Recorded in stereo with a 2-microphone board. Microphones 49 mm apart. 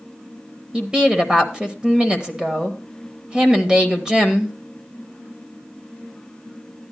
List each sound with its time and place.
0.7 s a woman speaking: 15° right (ahead or behind), 1.0 m